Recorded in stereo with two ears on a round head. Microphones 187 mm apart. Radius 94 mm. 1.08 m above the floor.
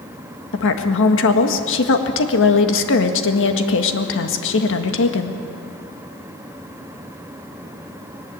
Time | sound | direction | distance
0.5 | a woman speaking | 65° left (ahead or behind) | 1.8 m